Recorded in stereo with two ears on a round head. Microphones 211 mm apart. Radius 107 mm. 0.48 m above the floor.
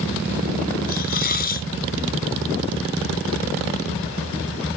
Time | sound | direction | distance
0.9 | a hiss | 45° left (ahead or behind) | ?